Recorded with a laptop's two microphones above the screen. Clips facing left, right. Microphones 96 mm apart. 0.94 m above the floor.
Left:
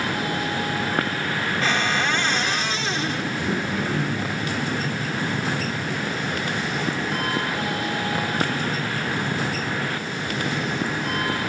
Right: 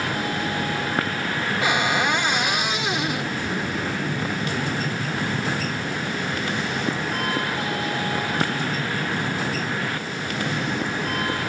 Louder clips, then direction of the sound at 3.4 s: Left 1 dB; 85° left.